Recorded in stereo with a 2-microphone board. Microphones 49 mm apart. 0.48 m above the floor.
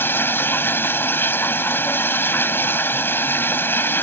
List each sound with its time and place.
0.0 s running water: 55° left (ahead or behind)